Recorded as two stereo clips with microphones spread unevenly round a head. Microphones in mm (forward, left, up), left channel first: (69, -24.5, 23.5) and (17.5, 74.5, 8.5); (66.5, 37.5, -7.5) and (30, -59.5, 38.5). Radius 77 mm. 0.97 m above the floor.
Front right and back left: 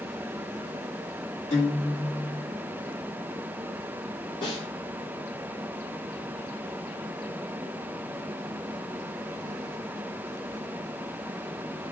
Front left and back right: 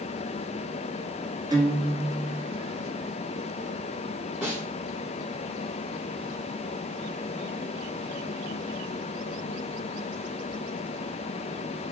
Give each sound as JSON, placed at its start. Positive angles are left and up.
{"t": 1.5, "sound": "a guitar", "azimuth_deg": -55, "distance_m": 1.6}
{"t": 4.4, "sound": "a snare drum", "azimuth_deg": -35, "distance_m": 3.0}